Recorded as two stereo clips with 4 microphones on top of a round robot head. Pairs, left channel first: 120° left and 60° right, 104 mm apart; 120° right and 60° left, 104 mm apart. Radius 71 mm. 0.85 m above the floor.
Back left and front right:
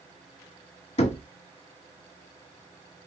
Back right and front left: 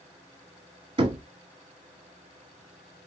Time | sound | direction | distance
1.0 | knocking | 100° left | 0.9 m